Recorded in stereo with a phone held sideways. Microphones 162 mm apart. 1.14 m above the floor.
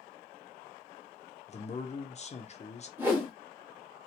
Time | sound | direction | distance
1.5 | a man speaking | 40° left (ahead or behind) | 0.5 m
3.0 | a whoosh | 10° right (ahead or behind) | 0.9 m